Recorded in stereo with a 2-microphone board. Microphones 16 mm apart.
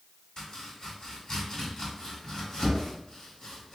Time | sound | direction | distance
0.4 | chopping | 40° left (ahead or behind) | 1.6 m